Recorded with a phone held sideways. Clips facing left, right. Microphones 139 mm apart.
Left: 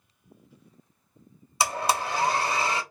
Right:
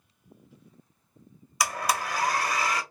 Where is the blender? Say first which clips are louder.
Left 2 dB; 25° left (ahead or behind), 0.5 m.